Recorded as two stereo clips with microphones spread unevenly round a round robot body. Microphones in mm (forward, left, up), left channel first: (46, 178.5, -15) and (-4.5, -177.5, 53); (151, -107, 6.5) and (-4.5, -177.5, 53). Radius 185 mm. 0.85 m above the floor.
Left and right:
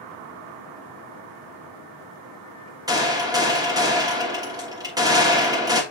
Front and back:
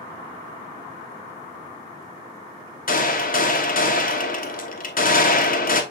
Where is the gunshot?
15° right, 1.1 m.